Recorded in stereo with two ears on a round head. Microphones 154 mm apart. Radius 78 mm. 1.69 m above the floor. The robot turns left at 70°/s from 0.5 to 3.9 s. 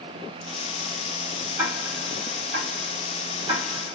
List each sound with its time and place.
1.6 s ticking: 15° right (ahead or behind), 1.6 m; by 4.0 s 5° left (ahead or behind), 1.6 m